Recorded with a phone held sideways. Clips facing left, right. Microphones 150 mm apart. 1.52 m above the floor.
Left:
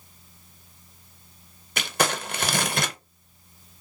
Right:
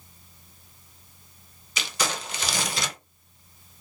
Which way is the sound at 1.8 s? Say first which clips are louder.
Left 5 dB; 55° left (ahead or behind).